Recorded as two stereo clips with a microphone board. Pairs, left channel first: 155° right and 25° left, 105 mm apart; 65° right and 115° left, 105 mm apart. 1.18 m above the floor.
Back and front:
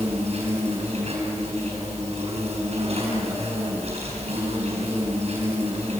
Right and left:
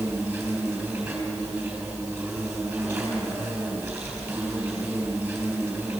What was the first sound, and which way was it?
An insect, 45° left.